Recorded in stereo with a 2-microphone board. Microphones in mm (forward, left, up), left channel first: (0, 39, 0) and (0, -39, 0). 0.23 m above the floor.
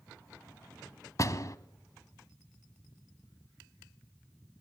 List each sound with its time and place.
1.2 s a door slam: 45° left (ahead or behind), 1.1 m